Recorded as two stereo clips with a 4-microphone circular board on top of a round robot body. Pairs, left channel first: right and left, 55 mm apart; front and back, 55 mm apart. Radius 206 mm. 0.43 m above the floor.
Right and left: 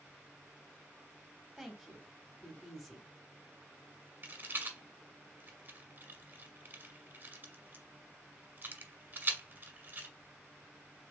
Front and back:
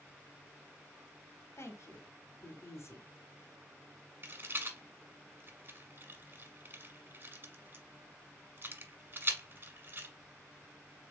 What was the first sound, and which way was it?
A woman speaking, straight ahead.